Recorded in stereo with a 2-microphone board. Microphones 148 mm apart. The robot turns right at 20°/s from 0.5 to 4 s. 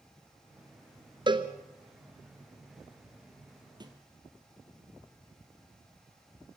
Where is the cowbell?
30° right (ahead or behind), 1.4 m; by 1.5 s 35° right (ahead or behind), 1.4 m.